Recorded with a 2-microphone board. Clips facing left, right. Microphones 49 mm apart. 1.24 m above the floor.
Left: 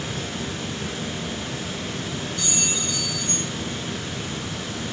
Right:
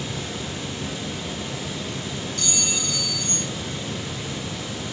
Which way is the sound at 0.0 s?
55° left (ahead or behind).